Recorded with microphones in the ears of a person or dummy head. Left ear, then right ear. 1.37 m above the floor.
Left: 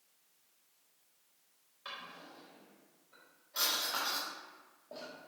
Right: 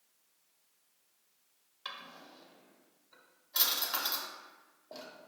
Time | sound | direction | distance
1.9 | a drawer | 30° right (ahead or behind) | 0.7 m